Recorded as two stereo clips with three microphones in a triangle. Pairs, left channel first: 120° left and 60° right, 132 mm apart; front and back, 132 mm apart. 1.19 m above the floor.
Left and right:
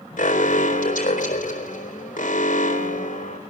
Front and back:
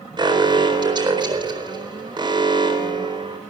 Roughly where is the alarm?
Behind left.